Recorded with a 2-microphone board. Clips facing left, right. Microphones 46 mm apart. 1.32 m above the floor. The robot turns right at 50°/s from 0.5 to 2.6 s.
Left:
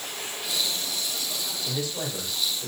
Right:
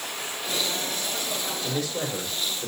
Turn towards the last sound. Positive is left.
turn(degrees=-30)